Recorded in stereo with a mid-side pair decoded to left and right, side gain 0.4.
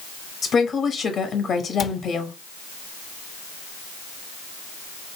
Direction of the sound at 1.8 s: 40° left.